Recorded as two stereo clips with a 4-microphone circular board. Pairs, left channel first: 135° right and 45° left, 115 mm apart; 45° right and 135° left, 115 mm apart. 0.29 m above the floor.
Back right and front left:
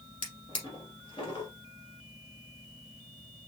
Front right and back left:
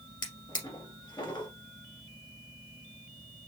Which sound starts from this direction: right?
A drawer, at 0.2 s.